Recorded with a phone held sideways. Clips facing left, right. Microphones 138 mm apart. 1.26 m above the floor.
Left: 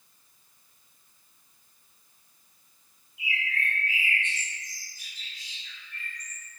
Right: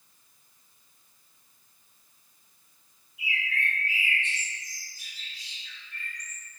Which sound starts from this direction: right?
A bird, at 3.2 s.